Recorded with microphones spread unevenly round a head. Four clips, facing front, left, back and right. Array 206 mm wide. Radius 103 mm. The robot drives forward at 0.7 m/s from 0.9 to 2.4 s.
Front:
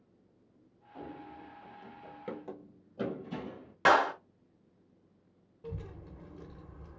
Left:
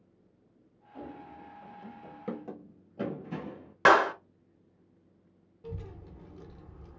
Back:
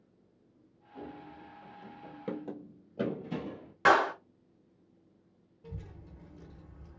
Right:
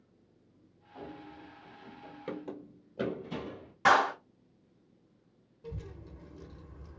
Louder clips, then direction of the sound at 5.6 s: Left 1 dB, front 5 dB; 5° left.